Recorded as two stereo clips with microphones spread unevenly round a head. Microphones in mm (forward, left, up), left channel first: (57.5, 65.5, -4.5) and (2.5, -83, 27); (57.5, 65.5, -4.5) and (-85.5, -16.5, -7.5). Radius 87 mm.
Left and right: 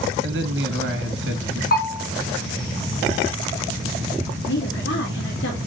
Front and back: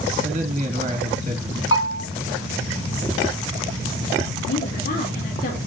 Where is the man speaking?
95° right, 2.5 m.